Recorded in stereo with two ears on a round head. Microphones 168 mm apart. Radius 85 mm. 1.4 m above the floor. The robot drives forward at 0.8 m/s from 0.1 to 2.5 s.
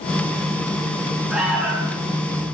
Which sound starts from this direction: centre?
An alarm, at 1.3 s.